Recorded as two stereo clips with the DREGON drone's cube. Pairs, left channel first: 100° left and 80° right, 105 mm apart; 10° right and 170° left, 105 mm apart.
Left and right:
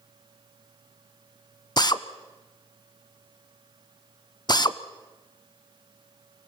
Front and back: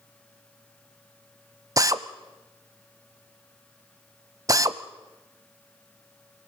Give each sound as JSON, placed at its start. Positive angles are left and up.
{"t": 1.8, "sound": "a drill", "azimuth_deg": 125, "distance_m": 0.7}